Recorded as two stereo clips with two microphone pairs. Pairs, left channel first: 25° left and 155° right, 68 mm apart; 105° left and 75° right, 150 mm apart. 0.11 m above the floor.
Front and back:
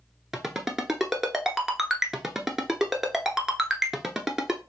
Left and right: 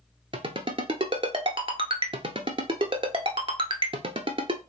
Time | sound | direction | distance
0.3 | a ringtone | 75° right | 0.6 m